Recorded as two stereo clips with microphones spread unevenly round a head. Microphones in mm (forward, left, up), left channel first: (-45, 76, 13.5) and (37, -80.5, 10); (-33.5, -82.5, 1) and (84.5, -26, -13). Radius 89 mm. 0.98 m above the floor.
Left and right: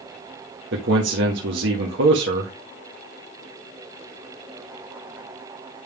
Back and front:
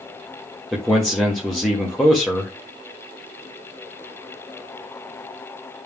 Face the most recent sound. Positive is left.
turn(degrees=-65)